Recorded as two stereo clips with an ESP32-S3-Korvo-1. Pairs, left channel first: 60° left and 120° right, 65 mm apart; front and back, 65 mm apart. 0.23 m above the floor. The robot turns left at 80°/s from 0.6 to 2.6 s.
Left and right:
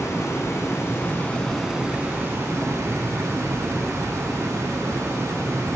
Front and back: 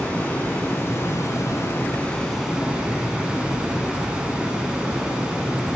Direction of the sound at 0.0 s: 50° left.